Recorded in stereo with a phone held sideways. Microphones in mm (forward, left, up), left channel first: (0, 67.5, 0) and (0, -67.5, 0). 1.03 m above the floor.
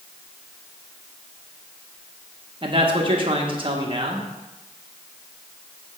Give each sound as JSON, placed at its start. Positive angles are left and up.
{"t": 2.6, "sound": "a man speaking", "side_deg": -40, "distance_m": 1.2}